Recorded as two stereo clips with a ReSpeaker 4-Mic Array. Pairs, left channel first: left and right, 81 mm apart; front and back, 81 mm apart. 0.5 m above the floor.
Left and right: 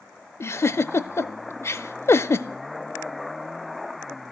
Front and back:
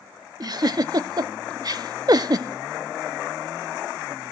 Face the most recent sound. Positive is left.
turn(degrees=145)